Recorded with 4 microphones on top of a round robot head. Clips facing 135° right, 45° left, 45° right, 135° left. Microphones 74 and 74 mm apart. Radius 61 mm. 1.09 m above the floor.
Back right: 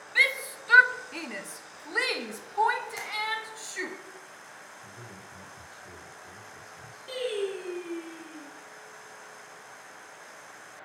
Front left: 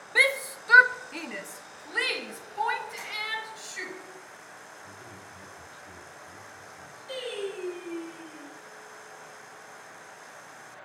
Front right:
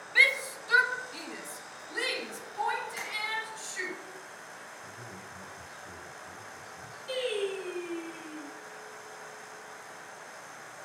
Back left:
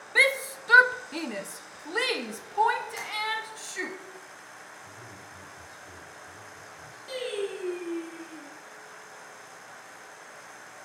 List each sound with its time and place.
0.1 s a shout: 90° left, 0.9 m; by 4.0 s 170° left, 2.5 m
3.0 s tapping: 150° right, 4 m
4.8 s a man speaking: 120° right, 6 m
7.1 s singing: 160° right, 6 m